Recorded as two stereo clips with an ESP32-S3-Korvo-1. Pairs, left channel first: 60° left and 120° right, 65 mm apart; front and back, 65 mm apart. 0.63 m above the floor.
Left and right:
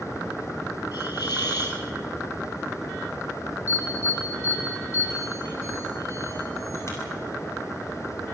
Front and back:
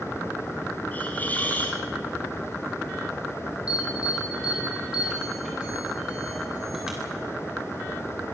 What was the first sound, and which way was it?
A hiss, 65° left.